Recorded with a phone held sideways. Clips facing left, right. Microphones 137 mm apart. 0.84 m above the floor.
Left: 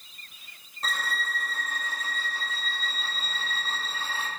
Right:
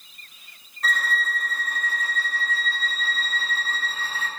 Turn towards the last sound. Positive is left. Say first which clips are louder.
# right 5 dB
turn(degrees=30)  # may be behind; listen again after turning